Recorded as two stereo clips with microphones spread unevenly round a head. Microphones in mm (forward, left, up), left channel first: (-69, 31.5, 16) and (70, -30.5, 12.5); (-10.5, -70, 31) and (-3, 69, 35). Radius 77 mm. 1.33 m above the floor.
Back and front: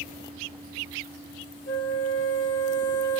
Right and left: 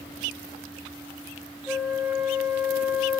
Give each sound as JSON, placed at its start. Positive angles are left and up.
{"t": 1.7, "sound": "a flute", "azimuth_deg": 165, "distance_m": 1.5}